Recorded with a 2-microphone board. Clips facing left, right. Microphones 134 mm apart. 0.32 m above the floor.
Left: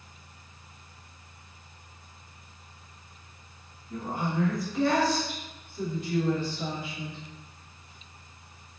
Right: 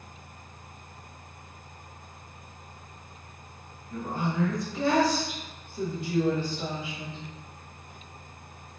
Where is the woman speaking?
20° left (ahead or behind), 1.0 m; by 7.2 s 45° right (ahead or behind), 1.7 m.